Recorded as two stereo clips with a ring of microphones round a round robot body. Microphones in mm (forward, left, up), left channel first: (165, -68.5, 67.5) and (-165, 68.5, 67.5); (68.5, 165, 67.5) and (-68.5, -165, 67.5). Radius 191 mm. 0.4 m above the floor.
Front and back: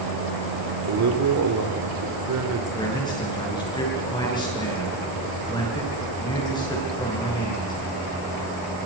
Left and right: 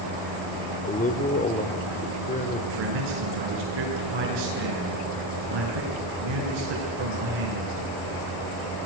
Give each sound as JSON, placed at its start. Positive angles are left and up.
{"t": 0.8, "sound": "a man speaking", "azimuth_deg": 130, "distance_m": 1.9}
{"t": 2.8, "sound": "a man speaking", "azimuth_deg": -100, "distance_m": 7.0}